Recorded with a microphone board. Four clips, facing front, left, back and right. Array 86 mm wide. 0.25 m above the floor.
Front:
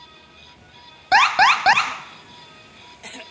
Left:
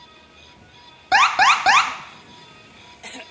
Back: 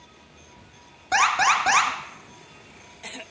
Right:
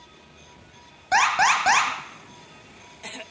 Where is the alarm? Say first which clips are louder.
Left 4 dB, front 5 dB; 20° left, 1.4 m.